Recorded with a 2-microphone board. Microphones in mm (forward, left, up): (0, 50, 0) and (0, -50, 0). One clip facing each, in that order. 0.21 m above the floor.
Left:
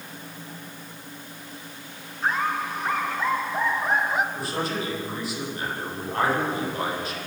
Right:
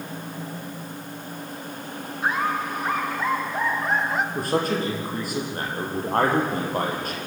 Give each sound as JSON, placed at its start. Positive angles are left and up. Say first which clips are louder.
{"t": 2.2, "sound": "laughter", "louder": "right 1 dB", "side_deg": -10, "distance_m": 2.5}
{"t": 4.3, "sound": "a man speaking", "louder": "right 5 dB", "side_deg": -50, "distance_m": 7.0}